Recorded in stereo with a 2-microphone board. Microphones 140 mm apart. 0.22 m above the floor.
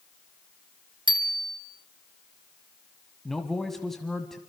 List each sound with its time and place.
1.1 s a bicycle bell: 35° right (ahead or behind), 2 m
3.2 s a man speaking: centre (ahead or behind), 1.4 m